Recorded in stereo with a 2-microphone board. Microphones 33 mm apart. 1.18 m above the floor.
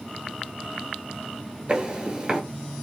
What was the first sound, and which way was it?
Footsteps, 25° right (ahead or behind).